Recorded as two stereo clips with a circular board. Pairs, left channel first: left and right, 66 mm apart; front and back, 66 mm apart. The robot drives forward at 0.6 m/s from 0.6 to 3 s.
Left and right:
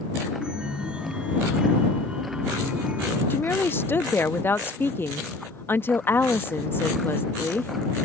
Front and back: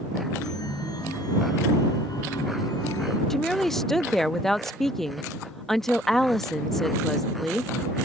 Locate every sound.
0.4 s a chime: 15° right; by 3.2 s 20° right
3.3 s a woman speaking: 80° left